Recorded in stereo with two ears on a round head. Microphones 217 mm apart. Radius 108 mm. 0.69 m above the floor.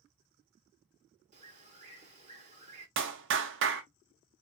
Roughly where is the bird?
Right.